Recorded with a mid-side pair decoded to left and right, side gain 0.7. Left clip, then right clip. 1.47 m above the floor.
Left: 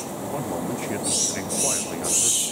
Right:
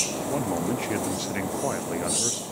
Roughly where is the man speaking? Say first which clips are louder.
Right 1 dB; ahead.